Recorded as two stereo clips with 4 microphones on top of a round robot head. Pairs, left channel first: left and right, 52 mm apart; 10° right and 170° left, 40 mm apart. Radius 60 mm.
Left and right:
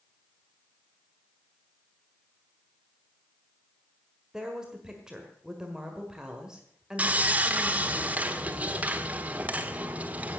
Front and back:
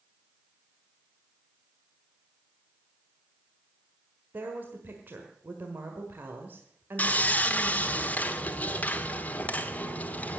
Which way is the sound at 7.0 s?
35° right.